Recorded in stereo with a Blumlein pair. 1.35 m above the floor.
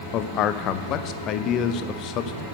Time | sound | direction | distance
0.1 | a man speaking | 35° left | 0.9 m